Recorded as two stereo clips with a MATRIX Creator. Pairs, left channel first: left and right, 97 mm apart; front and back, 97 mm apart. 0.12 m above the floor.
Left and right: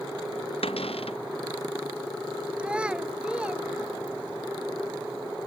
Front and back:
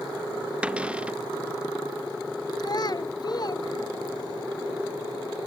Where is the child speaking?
15° right.